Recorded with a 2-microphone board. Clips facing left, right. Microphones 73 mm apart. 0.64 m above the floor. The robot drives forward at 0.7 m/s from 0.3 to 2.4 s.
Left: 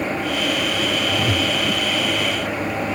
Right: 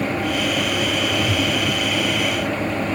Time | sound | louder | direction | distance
1.1 | a whoosh | even | 60° left (ahead or behind) | ?